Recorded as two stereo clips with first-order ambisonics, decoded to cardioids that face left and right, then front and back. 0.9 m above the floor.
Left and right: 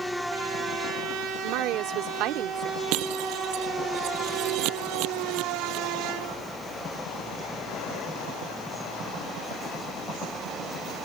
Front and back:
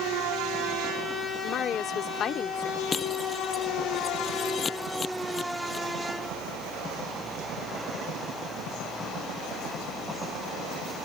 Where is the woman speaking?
55° right.